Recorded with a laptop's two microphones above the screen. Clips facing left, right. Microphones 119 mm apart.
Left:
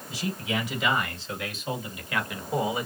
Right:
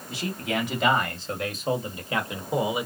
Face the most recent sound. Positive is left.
turn(degrees=-15)  # may be behind; listen again after turning